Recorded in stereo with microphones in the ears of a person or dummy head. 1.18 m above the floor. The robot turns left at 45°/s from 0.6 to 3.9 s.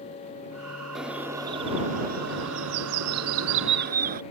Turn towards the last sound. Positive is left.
turn(degrees=-130)